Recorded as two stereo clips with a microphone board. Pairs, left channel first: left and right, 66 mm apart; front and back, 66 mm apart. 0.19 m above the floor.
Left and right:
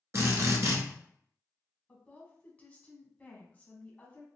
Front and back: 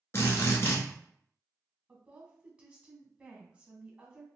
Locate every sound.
0.1 s a drill: 45° right, 1.0 m
1.9 s a woman speaking: 125° left, 1.1 m